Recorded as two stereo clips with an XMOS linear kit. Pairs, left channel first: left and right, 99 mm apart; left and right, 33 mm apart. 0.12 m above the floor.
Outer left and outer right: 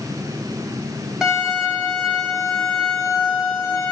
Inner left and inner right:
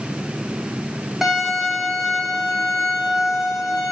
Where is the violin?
5° right (ahead or behind), 3 m.